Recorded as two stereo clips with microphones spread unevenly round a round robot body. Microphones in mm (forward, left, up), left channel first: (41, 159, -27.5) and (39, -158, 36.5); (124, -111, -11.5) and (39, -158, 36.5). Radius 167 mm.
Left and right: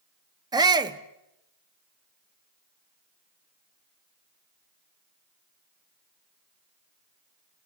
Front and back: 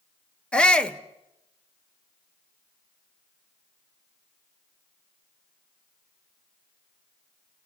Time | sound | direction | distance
0.5 | a shout | 5° right | 1.1 m